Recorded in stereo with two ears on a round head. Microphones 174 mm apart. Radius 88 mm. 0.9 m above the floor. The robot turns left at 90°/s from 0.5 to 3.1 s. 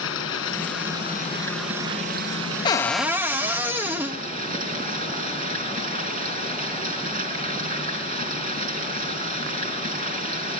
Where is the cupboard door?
30° left, 1.0 m; by 4.2 s 10° right, 1.0 m.